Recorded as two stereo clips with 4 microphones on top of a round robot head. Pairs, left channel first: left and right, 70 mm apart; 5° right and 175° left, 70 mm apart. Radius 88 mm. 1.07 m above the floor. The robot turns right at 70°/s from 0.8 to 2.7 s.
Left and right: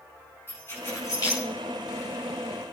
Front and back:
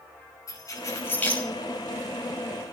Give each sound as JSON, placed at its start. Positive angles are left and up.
{"t": 0.5, "sound": "keys jangling", "azimuth_deg": 30, "distance_m": 6.0}